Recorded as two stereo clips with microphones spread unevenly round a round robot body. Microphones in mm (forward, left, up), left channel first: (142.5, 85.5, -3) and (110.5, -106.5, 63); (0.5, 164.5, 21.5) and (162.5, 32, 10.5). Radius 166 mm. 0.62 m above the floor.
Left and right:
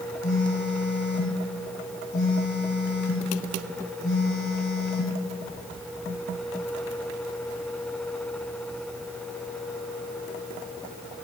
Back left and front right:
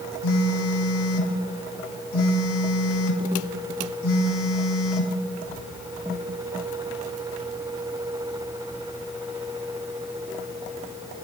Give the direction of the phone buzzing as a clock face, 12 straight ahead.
7 o'clock.